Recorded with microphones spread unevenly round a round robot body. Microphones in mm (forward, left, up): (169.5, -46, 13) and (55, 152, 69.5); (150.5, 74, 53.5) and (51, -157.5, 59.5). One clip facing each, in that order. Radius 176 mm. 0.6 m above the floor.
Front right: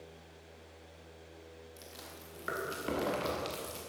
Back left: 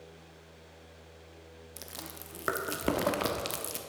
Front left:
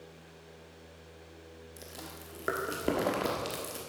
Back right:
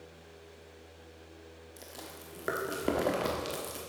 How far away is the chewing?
About 1.0 m.